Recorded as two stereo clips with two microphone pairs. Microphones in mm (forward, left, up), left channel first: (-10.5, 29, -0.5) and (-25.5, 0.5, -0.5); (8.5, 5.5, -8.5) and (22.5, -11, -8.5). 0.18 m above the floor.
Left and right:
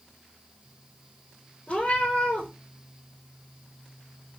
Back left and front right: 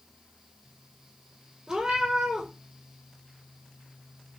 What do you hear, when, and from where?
1.7 s a cat meowing: 10° left, 1.1 m